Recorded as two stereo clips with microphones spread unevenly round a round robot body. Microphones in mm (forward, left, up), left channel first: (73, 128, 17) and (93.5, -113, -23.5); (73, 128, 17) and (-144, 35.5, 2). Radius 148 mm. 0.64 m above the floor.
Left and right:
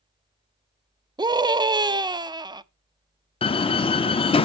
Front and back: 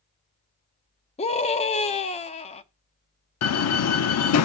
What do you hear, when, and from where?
1.2 s a scream: 35° right, 0.7 m
3.4 s a door slam: 20° left, 0.7 m